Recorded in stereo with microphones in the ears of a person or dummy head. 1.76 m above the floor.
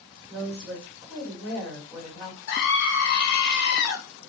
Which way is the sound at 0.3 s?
5° right (ahead or behind).